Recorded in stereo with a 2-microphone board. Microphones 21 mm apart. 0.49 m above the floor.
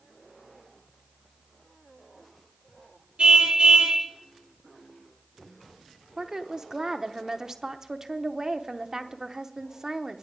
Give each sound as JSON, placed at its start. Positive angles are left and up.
{"t": 3.2, "sound": "a car horn", "side_deg": -85, "distance_m": 3.5}
{"t": 6.2, "sound": "a woman speaking", "side_deg": -30, "distance_m": 0.8}